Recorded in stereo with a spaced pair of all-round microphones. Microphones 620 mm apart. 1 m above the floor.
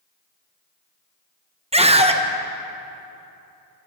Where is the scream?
10° right (ahead or behind), 0.9 m.